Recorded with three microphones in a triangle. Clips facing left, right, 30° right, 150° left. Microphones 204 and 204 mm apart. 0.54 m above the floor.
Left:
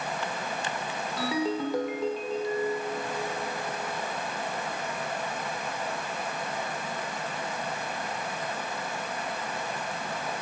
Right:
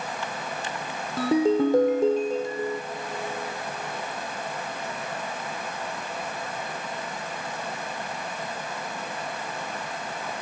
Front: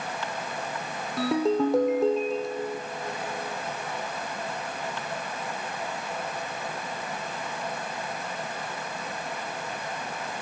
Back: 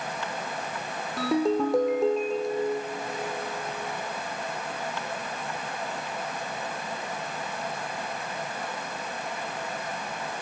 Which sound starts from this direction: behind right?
A ringtone, at 1.2 s.